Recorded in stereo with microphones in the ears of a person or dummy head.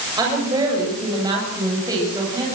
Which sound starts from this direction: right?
A woman speaking, at 0.2 s.